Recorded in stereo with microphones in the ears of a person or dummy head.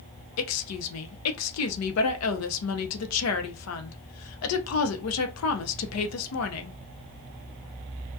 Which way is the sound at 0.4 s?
80° left.